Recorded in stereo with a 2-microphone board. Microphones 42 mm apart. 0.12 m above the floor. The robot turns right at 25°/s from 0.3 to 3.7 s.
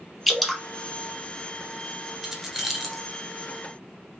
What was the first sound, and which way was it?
Dripping, centre (ahead or behind).